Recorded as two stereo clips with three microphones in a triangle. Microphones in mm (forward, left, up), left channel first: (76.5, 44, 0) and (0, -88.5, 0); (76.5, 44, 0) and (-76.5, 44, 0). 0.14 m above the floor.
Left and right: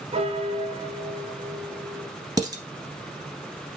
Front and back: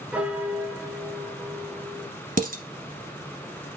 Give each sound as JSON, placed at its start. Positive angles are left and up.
{"t": 0.1, "sound": "a piano", "azimuth_deg": -100, "distance_m": 1.0}
{"t": 2.4, "sound": "dishes clattering", "azimuth_deg": 175, "distance_m": 1.4}